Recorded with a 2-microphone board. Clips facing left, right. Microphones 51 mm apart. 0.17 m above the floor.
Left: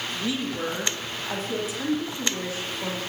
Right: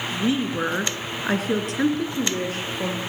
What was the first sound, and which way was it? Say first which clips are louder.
A woman speaking: right 7 dB; 25° right (ahead or behind).